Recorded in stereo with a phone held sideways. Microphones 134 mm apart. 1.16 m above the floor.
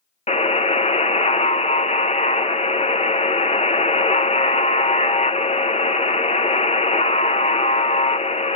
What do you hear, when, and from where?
0.3 s a buzzer: 55° left (ahead or behind), 0.7 m